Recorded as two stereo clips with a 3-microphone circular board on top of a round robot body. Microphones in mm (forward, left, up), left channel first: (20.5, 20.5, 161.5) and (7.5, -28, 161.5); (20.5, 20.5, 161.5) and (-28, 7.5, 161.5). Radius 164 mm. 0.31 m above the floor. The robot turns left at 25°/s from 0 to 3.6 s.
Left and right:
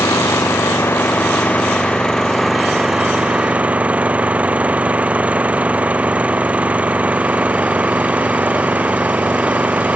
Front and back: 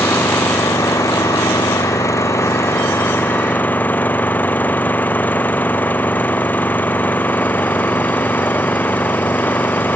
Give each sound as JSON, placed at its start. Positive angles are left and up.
{"t": 0.0, "sound": "an engine running", "azimuth_deg": 50}